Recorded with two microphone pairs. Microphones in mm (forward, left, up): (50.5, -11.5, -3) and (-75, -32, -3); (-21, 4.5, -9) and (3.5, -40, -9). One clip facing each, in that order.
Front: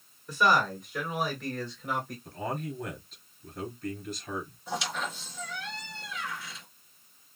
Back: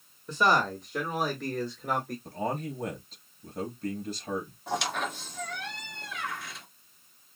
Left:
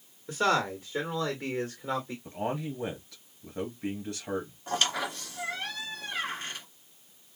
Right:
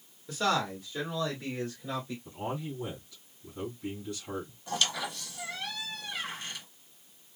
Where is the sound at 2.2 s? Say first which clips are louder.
Back 2 dB, left 3 dB; 145° left, 3 m.